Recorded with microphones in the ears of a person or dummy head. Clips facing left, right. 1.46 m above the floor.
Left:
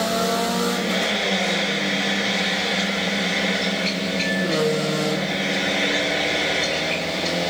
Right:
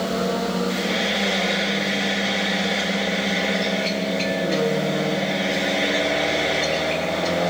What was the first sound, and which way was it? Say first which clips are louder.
Frying: even; centre (ahead or behind).